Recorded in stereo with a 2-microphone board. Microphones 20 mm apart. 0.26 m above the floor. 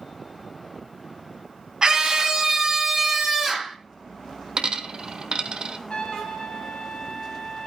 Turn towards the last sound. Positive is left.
turn(degrees=55)  # may be behind; listen again after turning